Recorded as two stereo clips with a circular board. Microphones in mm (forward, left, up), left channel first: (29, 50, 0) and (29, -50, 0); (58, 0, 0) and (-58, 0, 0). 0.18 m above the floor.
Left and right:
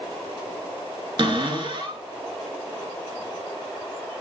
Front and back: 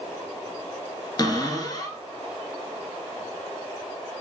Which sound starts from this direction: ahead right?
A cupboard door, at 1.2 s.